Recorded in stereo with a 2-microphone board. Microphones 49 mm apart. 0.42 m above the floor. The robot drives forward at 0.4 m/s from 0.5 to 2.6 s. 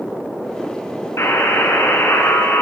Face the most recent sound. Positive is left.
turn(degrees=65)  # may be behind; listen again after turning